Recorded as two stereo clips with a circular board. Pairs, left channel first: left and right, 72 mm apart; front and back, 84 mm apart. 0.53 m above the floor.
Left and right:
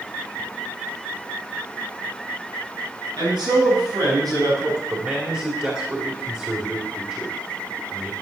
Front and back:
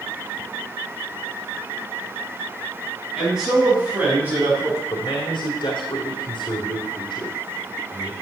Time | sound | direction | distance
3.2 | a man speaking | 95° right | 5.5 m
4.9 | a man speaking | 25° right | 2 m